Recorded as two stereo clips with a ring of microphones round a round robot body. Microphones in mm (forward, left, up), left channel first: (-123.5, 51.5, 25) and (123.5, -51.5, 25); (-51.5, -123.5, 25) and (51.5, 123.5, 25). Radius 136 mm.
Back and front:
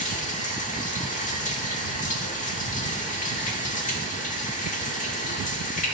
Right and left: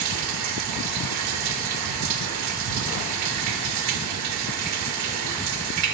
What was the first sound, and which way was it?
Running water, 95° left.